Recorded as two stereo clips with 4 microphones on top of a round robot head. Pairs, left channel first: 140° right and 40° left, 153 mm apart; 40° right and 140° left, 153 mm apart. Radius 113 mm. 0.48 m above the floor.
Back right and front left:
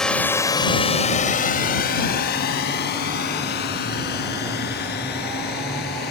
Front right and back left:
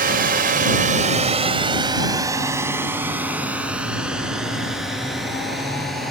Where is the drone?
135° left; by 6.1 s 125° right.